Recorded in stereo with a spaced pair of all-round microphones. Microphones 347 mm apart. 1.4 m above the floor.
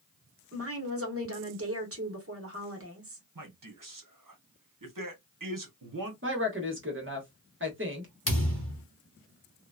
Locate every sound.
0.5 s a woman speaking: 40° right (ahead or behind), 1.1 m
3.4 s a man speaking: 65° right (ahead or behind), 1.0 m
6.2 s a woman speaking: 35° right (ahead or behind), 1.2 m
8.3 s a thud: 40° left (ahead or behind), 1.3 m